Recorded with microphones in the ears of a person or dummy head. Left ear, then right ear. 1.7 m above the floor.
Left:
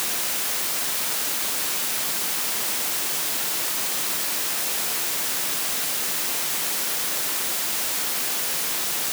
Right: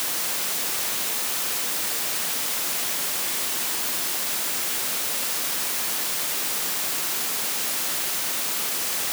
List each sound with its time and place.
Only background noise.